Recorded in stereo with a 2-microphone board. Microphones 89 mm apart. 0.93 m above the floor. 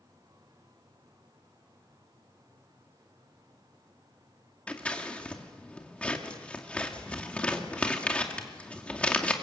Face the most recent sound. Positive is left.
turn(degrees=15)  # may be behind; listen again after turning